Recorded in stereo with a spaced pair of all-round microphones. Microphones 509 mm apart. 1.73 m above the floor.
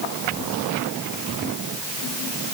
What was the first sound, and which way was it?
Only background noise.